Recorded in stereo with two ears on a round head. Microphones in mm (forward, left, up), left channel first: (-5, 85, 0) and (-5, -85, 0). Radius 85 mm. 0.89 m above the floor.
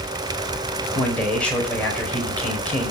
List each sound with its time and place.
0.9 s a man speaking: 5° left (ahead or behind), 4.5 m